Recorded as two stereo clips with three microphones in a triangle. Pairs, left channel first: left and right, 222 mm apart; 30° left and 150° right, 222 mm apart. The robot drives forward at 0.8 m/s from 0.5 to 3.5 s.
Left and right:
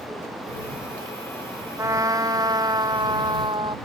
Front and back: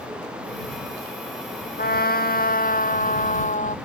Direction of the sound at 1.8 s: 15° right.